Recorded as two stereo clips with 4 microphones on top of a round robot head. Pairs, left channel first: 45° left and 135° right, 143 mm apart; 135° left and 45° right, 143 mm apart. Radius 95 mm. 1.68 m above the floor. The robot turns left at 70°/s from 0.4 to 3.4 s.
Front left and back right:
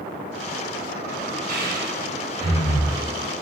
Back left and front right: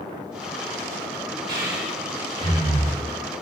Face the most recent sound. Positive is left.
turn(degrees=120)